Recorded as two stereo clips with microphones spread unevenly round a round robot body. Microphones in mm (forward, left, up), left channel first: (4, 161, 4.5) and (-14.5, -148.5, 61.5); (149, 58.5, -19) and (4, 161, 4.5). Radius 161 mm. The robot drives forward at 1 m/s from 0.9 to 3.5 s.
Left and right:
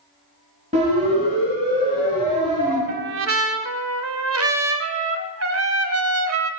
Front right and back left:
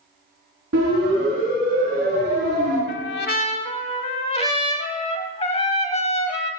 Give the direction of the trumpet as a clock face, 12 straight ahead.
1 o'clock.